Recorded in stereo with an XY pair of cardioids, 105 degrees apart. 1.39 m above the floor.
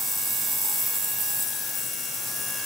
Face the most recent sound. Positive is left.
No sound to turn to.